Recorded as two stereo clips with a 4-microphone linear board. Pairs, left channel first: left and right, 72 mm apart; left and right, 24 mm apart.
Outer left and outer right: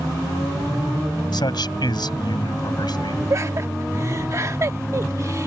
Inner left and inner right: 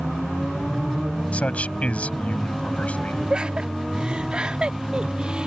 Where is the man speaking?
80° left.